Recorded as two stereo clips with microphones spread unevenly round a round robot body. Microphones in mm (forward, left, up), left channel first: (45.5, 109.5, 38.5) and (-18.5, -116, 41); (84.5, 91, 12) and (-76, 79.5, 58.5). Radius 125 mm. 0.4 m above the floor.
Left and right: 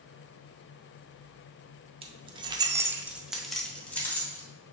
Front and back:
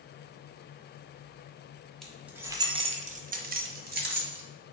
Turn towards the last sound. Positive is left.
turn(degrees=155)